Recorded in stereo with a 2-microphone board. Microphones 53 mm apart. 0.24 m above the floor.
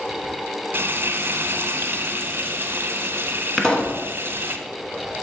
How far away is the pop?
About 1.0 m.